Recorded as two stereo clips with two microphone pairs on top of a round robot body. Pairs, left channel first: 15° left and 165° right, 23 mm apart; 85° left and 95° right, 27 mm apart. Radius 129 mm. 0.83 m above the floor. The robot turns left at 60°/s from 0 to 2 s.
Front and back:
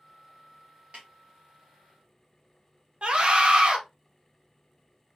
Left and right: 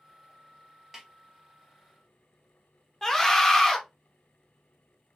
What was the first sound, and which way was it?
A snare drum, 175° right.